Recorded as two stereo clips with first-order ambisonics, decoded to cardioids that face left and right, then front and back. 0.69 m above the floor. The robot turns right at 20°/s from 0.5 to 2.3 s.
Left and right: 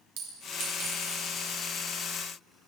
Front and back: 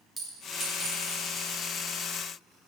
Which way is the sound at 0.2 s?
90° right.